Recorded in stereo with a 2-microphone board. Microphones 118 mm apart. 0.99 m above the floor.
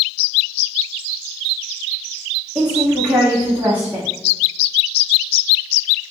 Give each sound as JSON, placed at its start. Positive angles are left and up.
{"t": 2.5, "sound": "a woman speaking", "side_deg": -10, "distance_m": 2.0}